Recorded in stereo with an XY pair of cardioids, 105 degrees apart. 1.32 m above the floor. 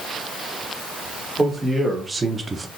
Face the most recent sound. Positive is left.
turn(degrees=-35)